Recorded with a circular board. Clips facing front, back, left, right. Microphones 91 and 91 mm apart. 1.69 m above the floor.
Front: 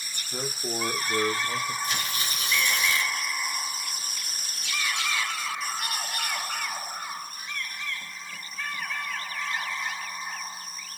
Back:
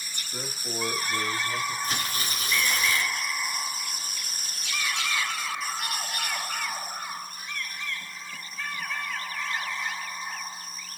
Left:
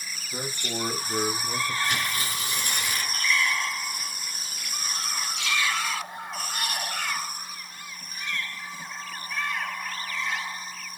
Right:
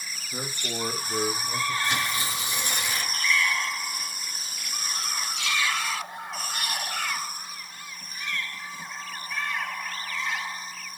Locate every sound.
0.3 s a man speaking: straight ahead, 2 m; by 1.7 s 45° left, 1.5 m
1.8 s tearing paper: 145° right, 2 m